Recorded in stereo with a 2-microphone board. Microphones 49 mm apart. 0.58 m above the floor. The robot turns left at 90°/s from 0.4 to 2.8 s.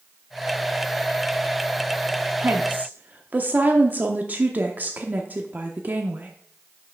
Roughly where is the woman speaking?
Right.